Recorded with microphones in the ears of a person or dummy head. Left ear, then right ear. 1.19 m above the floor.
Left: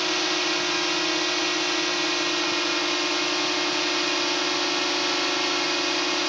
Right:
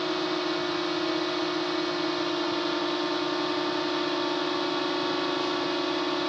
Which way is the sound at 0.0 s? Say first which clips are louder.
Left 5 dB; 70° left (ahead or behind).